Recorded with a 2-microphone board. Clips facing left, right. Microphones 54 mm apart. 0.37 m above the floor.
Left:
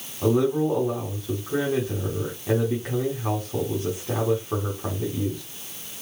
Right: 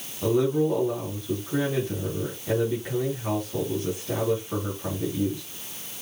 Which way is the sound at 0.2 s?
20° left (ahead or behind).